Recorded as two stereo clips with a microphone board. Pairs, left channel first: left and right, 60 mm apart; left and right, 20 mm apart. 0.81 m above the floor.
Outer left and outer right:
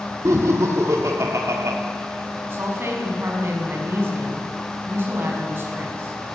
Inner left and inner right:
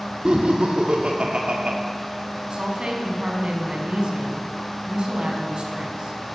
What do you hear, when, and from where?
0.2 s laughter: 60° right (ahead or behind), 2 m
2.5 s a woman speaking: 40° right (ahead or behind), 5.5 m